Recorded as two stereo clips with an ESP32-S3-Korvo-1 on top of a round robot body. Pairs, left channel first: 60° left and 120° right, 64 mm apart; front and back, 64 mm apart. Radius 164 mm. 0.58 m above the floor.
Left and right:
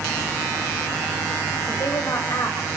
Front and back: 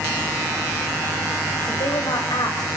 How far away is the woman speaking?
About 4.5 m.